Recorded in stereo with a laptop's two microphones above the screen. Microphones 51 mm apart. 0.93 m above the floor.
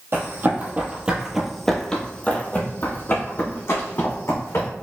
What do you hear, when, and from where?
0.1 s running footsteps: 45° right (ahead or behind), 1.3 m; by 4.7 s 65° left (ahead or behind), 2.5 m